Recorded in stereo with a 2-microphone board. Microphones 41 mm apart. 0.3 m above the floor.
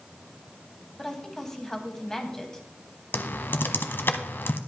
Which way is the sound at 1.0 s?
15° left (ahead or behind).